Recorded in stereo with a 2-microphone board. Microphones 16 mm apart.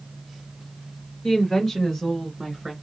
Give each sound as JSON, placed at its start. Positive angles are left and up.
{"t": 1.2, "sound": "a woman speaking", "side_deg": 30, "distance_m": 1.6}